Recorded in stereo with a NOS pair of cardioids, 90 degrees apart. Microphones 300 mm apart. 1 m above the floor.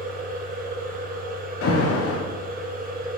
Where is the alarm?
50° left, 0.9 m.